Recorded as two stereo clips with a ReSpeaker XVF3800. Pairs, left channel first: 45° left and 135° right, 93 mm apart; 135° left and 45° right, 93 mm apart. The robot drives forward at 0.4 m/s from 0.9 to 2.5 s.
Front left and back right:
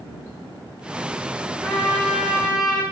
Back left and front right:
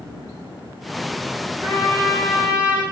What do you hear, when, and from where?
1.6 s a trumpet: 100° left, 1.2 m; by 2.8 s 130° left, 1.3 m